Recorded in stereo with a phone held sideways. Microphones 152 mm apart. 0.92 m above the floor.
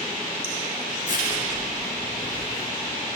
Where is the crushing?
55° left (ahead or behind), 7.5 m.